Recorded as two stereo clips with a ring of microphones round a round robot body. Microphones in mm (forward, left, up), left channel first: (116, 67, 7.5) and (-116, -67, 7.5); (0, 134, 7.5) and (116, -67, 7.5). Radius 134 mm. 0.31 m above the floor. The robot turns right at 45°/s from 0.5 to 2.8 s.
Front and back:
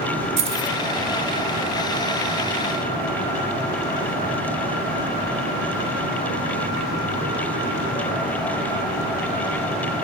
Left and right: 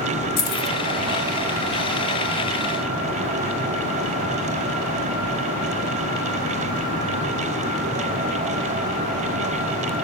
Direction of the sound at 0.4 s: 145° left.